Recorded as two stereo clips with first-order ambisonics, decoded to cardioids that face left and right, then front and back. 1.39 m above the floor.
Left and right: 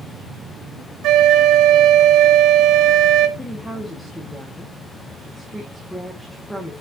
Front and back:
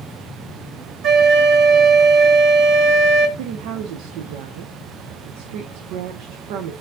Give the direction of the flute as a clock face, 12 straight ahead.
4 o'clock.